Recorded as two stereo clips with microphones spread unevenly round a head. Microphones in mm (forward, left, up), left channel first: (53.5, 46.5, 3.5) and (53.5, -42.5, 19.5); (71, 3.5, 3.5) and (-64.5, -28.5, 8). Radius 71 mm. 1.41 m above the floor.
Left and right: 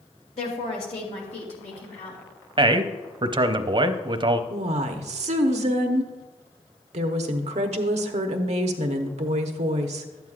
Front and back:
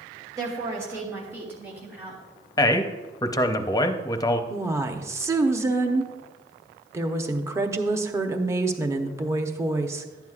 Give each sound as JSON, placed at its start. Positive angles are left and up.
{"t": 0.4, "sound": "a woman speaking", "azimuth_deg": 125, "distance_m": 2.5}
{"t": 2.6, "sound": "a man speaking", "azimuth_deg": -55, "distance_m": 0.7}
{"t": 4.5, "sound": "a woman speaking", "azimuth_deg": -95, "distance_m": 0.9}